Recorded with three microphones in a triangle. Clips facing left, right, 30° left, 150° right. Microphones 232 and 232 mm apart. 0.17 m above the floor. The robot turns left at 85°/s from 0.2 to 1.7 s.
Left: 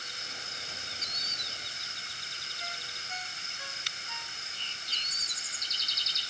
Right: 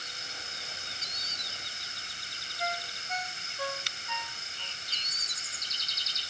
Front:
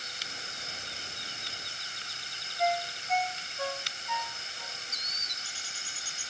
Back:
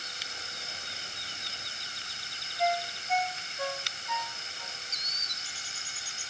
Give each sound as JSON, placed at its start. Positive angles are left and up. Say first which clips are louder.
{"t": 2.6, "sound": "a ringtone", "louder": "right 12 dB, even", "azimuth_deg": -60}